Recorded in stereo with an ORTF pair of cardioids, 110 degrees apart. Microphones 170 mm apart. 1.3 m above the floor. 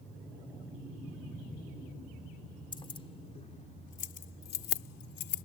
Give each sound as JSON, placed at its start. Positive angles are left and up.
{"t": 2.7, "sound": "keys jangling", "azimuth_deg": 30}